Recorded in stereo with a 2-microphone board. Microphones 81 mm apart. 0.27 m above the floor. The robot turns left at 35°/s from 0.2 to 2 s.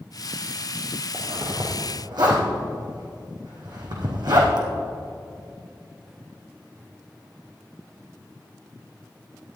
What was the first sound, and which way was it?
A zipper, 30° right (ahead or behind).